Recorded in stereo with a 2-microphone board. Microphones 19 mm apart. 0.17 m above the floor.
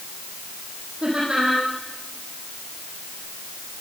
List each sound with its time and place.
1.0 s laughter: 50° right (ahead or behind), 9 m